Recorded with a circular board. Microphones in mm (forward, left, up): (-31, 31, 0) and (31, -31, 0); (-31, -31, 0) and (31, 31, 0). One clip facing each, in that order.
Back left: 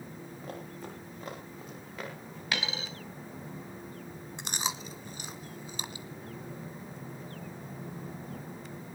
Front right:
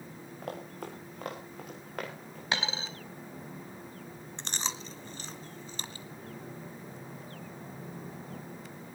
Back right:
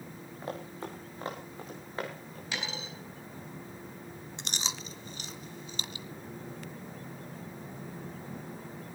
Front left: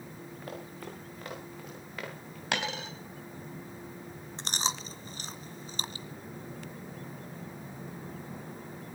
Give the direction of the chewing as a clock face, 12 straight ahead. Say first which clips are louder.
Back left 2 dB, front left 6 dB; 10 o'clock.